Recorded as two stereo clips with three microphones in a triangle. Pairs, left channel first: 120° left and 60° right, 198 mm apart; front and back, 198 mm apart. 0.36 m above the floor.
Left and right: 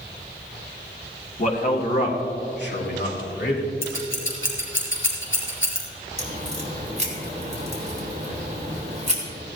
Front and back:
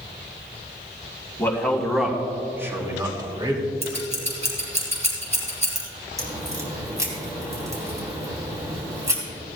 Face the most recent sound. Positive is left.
turn(degrees=-110)